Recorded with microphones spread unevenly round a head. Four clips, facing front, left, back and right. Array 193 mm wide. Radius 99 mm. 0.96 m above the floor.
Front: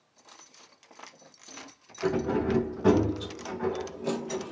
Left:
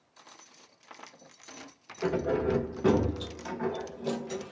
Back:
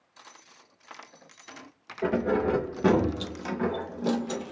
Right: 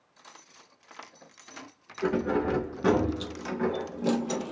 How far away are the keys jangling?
About 2 m.